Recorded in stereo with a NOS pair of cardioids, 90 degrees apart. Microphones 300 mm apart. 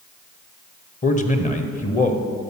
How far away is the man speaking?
About 1.1 m.